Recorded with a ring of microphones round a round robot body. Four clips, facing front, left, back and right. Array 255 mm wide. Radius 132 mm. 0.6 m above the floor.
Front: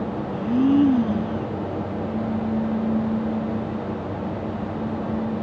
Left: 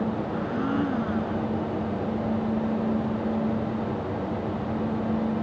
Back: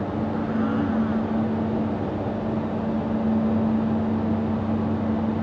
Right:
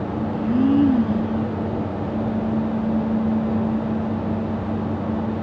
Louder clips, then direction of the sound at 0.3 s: Right 12 dB, front 8 dB; 40° right.